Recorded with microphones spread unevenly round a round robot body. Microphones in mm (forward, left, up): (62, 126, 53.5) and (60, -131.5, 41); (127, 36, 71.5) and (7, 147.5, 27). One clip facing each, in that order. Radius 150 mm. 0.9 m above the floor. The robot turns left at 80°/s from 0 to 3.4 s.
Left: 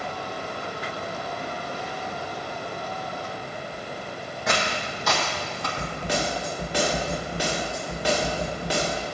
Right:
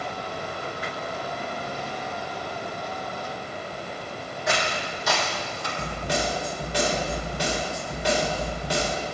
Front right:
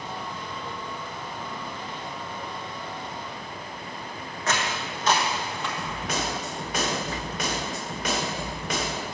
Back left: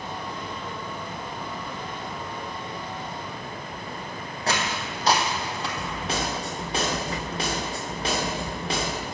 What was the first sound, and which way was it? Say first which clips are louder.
Footsteps: even, back left 1 dB; 75° left.